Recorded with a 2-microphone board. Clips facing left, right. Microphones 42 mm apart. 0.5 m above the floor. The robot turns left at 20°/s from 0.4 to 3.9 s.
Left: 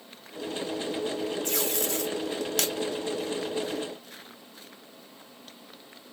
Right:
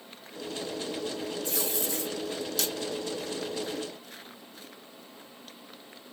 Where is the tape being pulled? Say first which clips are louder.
Left 3 dB; 55° left (ahead or behind), 0.7 m.